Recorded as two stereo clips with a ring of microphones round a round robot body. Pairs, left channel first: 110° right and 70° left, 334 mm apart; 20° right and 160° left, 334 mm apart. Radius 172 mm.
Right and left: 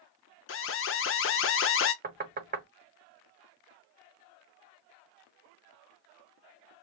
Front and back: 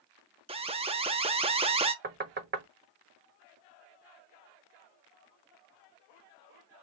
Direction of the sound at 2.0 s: 115° left.